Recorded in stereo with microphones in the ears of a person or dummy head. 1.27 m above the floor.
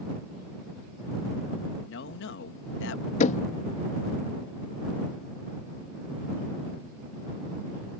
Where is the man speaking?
75° left (ahead or behind).